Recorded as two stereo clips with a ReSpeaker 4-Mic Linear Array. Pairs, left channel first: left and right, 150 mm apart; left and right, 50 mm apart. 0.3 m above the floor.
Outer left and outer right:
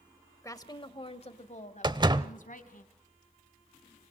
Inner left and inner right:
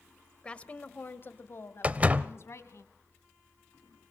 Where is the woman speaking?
20° left (ahead or behind), 0.9 m; by 2.8 s 65° left (ahead or behind), 2.0 m.